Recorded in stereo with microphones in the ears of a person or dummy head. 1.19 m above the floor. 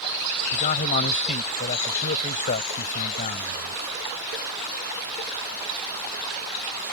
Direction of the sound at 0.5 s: 45° left (ahead or behind).